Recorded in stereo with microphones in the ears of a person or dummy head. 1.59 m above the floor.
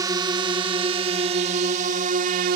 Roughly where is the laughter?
No laughter in this recording.